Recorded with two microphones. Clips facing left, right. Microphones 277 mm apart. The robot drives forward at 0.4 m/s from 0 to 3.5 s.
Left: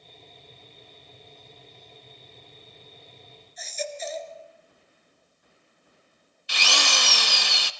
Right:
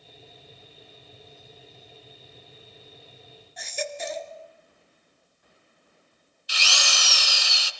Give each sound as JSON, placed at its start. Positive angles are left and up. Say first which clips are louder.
{"t": 3.6, "sound": "a baby crying", "louder": "right 1 dB", "side_deg": -75, "distance_m": 1.6}
{"t": 6.5, "sound": "a drill", "louder": "left 5 dB", "side_deg": 65, "distance_m": 1.0}